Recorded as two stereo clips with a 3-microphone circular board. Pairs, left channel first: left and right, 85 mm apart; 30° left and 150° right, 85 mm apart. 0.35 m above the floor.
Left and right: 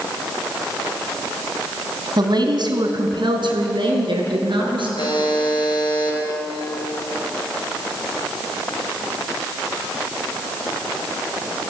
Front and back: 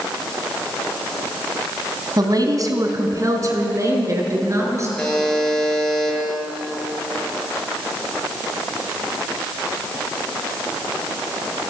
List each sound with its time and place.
2.2 s a woman speaking: 115° right, 2.5 m; by 4.9 s 95° right, 6 m
5.0 s a buzzer: 110° left, 6.5 m